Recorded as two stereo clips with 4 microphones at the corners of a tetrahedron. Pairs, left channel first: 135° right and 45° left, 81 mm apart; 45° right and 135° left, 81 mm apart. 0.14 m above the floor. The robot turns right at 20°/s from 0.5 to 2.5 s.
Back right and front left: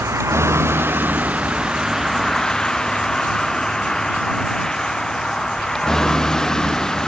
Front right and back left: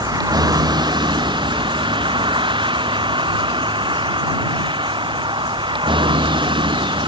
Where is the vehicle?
100° left; by 7.1 s 140° left.